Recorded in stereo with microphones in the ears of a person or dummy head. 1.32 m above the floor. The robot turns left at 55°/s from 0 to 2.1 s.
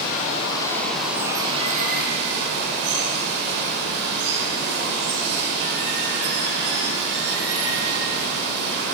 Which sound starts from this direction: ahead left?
Running water, at 0.0 s.